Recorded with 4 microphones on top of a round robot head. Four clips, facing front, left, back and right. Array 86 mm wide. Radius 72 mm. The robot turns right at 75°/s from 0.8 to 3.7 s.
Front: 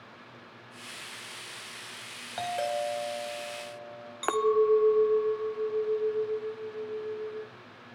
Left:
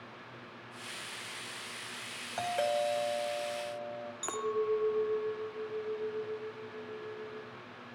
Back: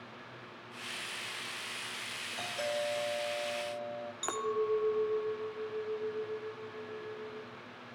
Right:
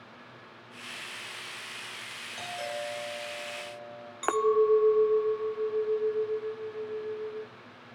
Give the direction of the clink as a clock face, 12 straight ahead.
2 o'clock.